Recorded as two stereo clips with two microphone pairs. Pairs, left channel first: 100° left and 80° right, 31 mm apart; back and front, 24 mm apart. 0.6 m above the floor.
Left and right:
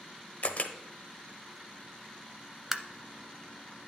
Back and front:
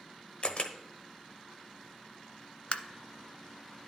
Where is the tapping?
155° right, 0.5 m.